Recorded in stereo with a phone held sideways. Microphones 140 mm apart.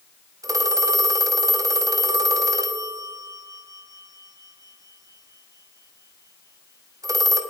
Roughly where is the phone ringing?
Right.